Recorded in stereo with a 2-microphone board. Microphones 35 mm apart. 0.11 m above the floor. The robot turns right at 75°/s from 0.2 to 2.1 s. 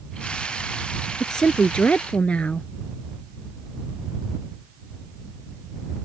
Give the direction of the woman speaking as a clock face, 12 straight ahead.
11 o'clock.